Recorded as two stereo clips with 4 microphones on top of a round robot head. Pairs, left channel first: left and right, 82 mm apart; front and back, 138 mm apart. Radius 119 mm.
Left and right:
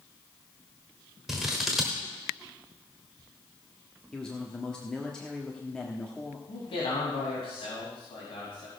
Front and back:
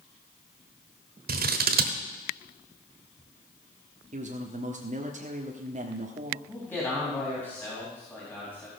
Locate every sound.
1.3 s scissors: straight behind, 1.3 m
4.1 s a man speaking: 170° left, 1.3 m
6.5 s a man speaking: 80° left, 4 m